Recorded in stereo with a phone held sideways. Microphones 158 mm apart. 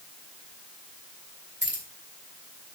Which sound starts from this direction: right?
Keys jangling, at 1.6 s.